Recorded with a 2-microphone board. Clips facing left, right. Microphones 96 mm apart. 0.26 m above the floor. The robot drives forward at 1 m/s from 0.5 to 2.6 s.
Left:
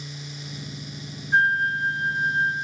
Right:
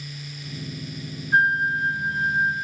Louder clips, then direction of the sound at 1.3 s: Right 1 dB; 10° right (ahead or behind).